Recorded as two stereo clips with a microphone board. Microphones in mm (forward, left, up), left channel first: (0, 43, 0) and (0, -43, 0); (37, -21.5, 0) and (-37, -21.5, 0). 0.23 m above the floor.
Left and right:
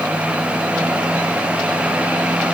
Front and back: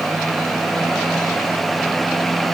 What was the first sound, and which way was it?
Only background noise.